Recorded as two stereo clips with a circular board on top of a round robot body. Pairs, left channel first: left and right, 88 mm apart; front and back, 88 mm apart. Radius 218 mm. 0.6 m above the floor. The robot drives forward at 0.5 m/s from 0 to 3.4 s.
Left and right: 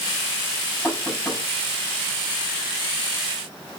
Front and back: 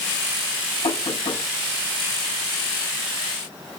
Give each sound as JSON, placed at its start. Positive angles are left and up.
{"t": 0.8, "sound": "knocking", "azimuth_deg": 5, "distance_m": 6.5}